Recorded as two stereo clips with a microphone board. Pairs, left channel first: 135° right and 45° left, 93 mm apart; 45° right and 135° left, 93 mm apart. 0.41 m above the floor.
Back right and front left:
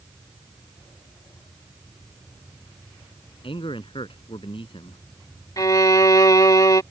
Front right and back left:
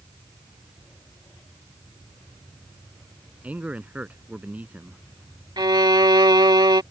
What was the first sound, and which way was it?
A man speaking, 150° right.